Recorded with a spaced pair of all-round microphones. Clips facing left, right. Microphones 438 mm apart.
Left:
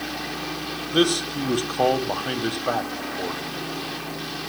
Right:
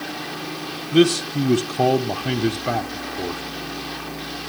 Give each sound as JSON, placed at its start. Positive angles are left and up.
{"t": 0.9, "sound": "a man speaking", "side_deg": -45, "distance_m": 0.8}